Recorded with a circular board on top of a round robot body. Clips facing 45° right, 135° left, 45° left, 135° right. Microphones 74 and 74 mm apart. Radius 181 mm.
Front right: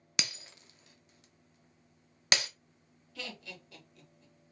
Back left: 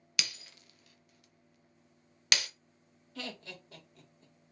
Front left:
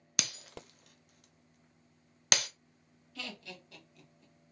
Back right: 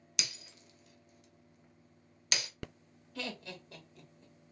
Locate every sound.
0.2 s breaking glass: 15° left, 0.5 m
3.1 s laughter: straight behind, 2 m